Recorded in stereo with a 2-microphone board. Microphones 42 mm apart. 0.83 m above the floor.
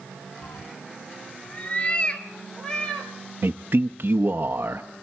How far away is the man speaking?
About 0.7 m.